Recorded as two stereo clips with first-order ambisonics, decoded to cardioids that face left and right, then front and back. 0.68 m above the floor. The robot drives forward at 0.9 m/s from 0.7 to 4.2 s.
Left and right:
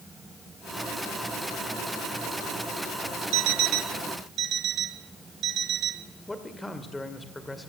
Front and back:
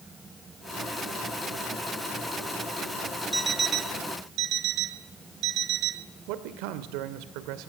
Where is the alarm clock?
90° right, 0.6 m; by 6.1 s 145° right, 1.0 m.